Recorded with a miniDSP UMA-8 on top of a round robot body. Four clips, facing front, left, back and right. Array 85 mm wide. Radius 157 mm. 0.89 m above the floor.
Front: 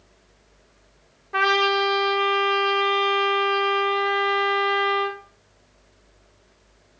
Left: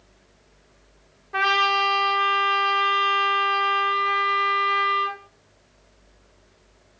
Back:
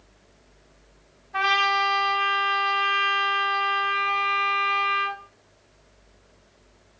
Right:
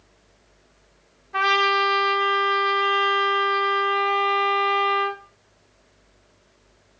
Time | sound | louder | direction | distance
1.3 | a trumpet | right 1 dB, front 2 dB | 25° left | 3 m